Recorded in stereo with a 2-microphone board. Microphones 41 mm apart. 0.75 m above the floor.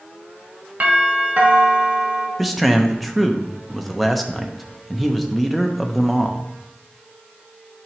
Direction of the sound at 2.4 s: 5° right (ahead or behind).